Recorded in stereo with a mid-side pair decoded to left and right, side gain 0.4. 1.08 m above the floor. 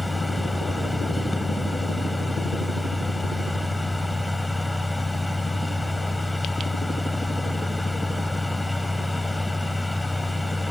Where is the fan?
10° left.